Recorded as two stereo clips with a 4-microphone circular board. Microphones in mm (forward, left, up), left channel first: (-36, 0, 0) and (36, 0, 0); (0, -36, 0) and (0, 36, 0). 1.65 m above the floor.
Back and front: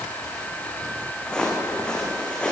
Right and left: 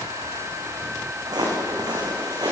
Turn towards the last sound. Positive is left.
turn(degrees=105)